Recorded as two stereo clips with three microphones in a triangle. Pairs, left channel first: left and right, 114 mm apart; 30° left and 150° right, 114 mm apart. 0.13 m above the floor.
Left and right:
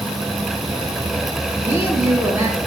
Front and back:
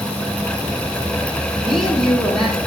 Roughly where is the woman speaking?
Ahead right.